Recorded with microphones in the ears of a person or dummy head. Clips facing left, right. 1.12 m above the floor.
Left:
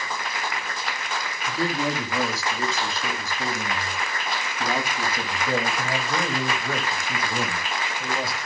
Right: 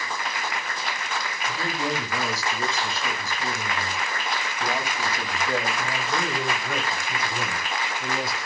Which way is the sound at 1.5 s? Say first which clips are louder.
Left 4 dB; 75° left (ahead or behind).